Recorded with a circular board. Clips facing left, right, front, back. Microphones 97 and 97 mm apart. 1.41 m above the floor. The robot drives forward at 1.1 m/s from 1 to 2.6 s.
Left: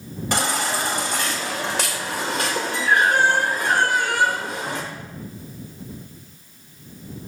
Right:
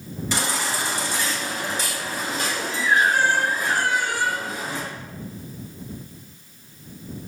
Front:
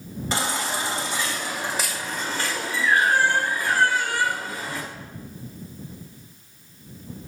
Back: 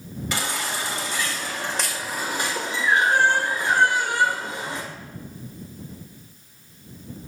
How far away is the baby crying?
About 2.0 m.